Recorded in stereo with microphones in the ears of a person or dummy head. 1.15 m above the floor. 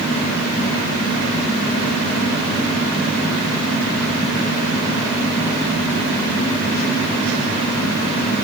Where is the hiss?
No hiss in this recording.